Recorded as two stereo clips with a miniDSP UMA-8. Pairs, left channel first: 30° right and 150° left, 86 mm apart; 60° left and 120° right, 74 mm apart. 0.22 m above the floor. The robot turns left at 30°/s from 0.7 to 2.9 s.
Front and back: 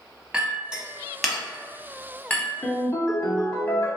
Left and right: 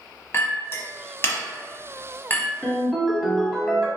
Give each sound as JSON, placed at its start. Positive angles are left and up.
{"t": 0.3, "sound": "a clink", "azimuth_deg": 75, "distance_m": 0.7}
{"t": 2.6, "sound": "a ringtone", "azimuth_deg": -15, "distance_m": 0.7}